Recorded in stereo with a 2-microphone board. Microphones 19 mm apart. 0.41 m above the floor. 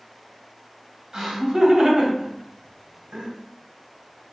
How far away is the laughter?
About 2 m.